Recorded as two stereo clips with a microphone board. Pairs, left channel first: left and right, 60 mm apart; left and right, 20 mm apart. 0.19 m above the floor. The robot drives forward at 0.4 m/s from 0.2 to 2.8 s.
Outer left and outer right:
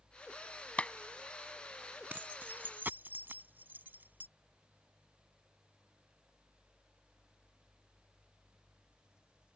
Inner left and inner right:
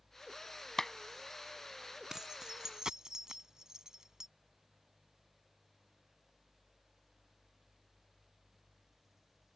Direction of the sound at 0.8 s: 20° left (ahead or behind).